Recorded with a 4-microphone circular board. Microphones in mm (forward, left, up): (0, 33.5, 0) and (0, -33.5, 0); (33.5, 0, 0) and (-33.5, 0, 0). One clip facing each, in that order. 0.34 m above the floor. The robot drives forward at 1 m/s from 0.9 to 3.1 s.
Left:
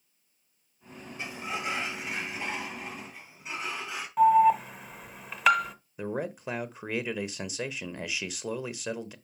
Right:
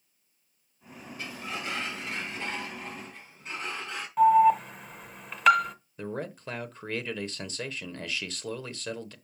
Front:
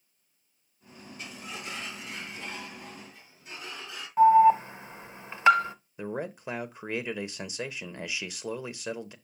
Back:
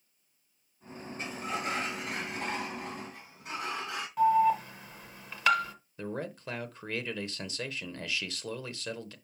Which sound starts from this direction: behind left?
A sliding door, at 1.2 s.